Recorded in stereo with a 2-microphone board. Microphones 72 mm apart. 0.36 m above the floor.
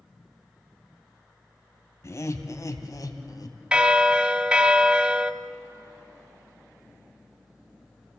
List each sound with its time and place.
2.0 s laughter: 45° left (ahead or behind), 2 m; by 3.6 s 65° left (ahead or behind), 2.5 m
3.7 s a bell: 15° right (ahead or behind), 0.8 m